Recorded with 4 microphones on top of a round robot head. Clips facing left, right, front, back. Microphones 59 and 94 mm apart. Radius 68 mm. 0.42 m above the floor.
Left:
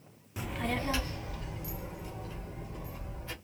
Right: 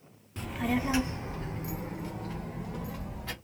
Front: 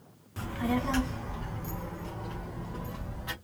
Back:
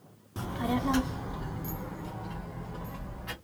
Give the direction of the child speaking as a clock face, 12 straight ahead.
7 o'clock.